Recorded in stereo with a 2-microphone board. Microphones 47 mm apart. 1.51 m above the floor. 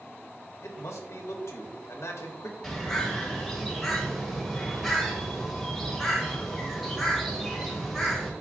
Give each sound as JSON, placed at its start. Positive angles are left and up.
{"t": 0.6, "sound": "a man speaking", "side_deg": 85, "distance_m": 0.8}
{"t": 2.6, "sound": "a bird", "side_deg": 0, "distance_m": 1.4}